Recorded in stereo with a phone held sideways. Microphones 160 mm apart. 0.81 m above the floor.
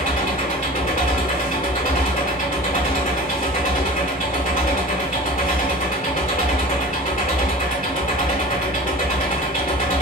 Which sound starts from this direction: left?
An engine running, at 0.0 s.